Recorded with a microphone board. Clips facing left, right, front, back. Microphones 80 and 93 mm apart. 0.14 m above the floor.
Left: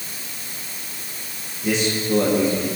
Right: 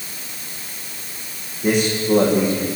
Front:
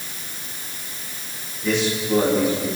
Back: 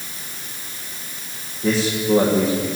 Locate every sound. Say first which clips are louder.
1.6 s a man speaking: right 4 dB, back 2 dB; 130° right, 9 m